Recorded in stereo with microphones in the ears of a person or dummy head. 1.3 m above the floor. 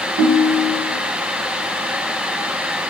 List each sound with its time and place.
0.2 s a ringtone: 65° right (ahead or behind), 0.6 m